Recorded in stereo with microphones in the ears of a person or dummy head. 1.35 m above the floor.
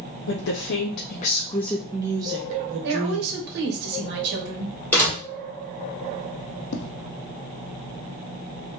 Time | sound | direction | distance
0.3 | a woman speaking | 80° left | 0.9 m
2.8 | a woman speaking | 60° right (ahead or behind) | 1.3 m
4.9 | a door slam | 10° left (ahead or behind) | 2.5 m
6.7 | tapping | 60° left (ahead or behind) | 0.6 m